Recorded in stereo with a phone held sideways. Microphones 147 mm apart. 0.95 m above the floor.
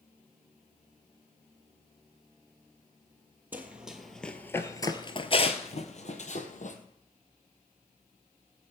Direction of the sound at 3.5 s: 10° right (ahead or behind).